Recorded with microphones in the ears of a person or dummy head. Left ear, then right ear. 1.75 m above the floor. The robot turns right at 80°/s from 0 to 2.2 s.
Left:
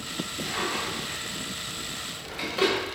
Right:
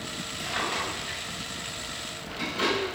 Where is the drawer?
40° right (ahead or behind), 1.9 m; by 2.8 s 40° left (ahead or behind), 1.9 m.